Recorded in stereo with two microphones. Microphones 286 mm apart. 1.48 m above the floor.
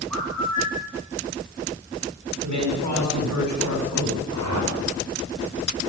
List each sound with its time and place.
0.1 s a bird: 80° right, 8.5 m
2.4 s a man speaking: 85° right, 7 m
4.3 s a whoosh: 80° right, 4.5 m